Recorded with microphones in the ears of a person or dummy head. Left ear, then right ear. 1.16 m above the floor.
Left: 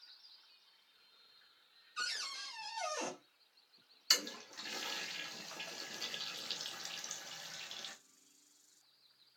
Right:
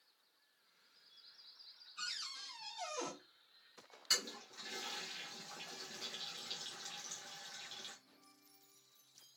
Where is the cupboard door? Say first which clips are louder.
Left 4 dB; 65° left (ahead or behind), 1.6 m.